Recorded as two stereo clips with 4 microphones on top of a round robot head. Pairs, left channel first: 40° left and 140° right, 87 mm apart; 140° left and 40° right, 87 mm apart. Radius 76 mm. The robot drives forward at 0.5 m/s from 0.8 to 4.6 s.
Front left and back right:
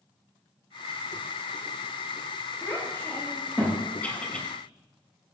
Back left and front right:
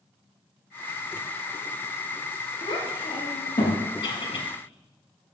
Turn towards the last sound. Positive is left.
turn(degrees=115)